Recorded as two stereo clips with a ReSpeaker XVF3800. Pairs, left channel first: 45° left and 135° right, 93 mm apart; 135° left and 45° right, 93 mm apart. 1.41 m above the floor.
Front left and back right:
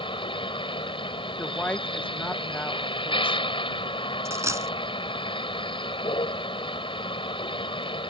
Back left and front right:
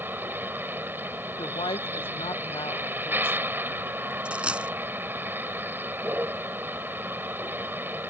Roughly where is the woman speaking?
Behind left.